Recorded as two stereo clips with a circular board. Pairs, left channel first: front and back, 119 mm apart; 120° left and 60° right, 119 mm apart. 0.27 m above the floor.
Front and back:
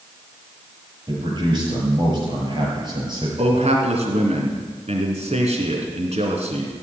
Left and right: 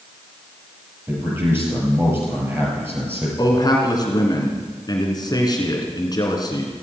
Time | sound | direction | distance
1.1 | a man speaking | 130° right | 6 m
3.4 | a man speaking | 170° left | 3 m